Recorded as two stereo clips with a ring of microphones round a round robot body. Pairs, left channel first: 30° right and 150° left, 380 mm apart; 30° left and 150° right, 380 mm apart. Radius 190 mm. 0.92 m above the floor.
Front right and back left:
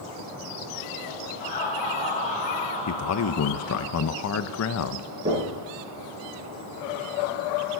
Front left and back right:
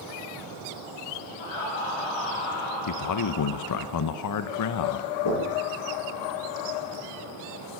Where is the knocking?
75° left, 9 m.